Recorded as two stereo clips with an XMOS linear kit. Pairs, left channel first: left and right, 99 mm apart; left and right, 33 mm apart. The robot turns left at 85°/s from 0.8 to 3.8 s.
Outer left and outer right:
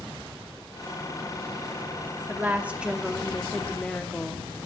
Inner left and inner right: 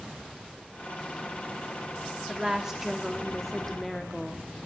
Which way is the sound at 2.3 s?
20° right (ahead or behind).